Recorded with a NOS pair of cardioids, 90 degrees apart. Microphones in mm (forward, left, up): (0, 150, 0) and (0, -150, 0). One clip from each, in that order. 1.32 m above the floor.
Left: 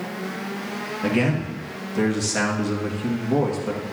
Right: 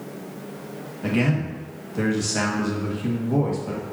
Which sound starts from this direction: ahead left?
A man speaking, at 1.0 s.